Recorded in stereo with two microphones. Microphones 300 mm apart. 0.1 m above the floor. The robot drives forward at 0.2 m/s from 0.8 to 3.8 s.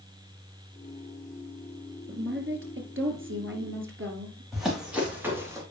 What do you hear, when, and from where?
2.1 s a woman speaking: 45° right (ahead or behind), 1.5 m
4.5 s running footsteps: centre (ahead or behind), 3.5 m; by 5.6 s 10° right (ahead or behind), 2.5 m